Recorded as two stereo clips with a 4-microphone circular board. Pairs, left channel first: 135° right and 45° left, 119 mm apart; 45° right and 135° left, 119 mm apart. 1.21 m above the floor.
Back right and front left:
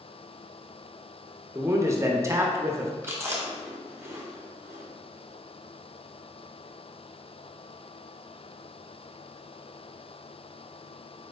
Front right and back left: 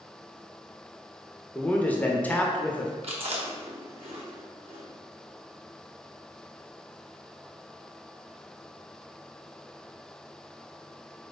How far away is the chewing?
About 0.8 m.